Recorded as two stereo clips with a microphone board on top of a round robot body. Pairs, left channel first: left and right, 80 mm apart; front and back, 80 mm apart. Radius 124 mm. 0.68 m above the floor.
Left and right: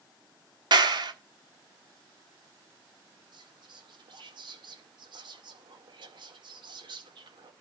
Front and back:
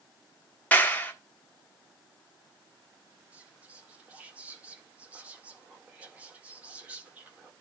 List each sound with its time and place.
0.7 s a clap: 70° right, 1.3 m
3.3 s whispering: 105° right, 1.8 m